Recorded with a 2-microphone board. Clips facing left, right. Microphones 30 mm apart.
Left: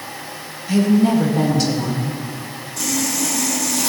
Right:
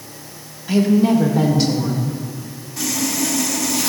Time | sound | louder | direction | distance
0.7 | a woman speaking | even | 15° right (ahead or behind) | 1.7 m
2.8 | sawing | even | 20° right (ahead or behind) | 2.5 m